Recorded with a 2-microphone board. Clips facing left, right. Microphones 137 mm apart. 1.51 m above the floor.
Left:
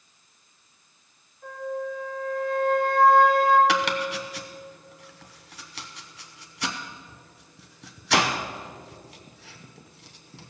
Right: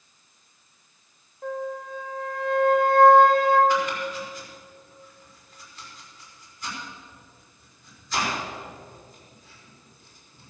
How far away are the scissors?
No scissors in this recording.